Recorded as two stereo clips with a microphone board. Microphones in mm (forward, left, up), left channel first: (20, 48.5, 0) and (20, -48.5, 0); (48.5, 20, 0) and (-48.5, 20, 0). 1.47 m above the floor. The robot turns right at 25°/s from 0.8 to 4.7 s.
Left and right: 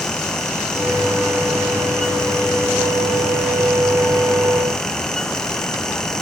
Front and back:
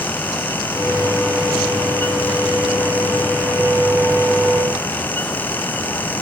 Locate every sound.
Only background noise.